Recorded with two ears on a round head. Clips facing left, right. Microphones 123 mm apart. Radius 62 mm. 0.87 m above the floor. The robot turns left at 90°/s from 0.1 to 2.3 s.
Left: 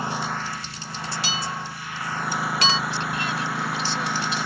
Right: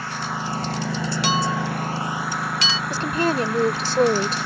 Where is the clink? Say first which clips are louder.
Right 11 dB; 55° right (ahead or behind); by 2.8 s 45° left (ahead or behind).